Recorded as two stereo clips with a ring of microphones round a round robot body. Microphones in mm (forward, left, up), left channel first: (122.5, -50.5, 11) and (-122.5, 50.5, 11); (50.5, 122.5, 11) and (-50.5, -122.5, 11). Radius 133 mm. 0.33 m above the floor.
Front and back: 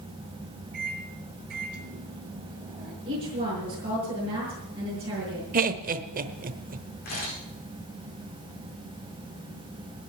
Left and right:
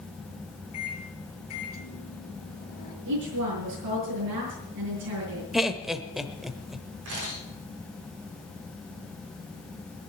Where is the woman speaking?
130° right, 6 m.